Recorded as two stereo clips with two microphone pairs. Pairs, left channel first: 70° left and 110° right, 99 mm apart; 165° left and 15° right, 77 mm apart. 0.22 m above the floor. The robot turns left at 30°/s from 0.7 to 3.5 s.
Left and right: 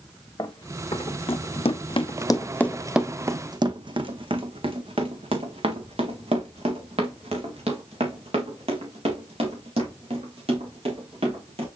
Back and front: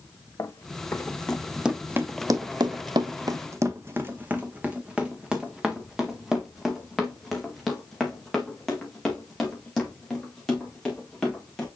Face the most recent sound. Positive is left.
turn(degrees=-115)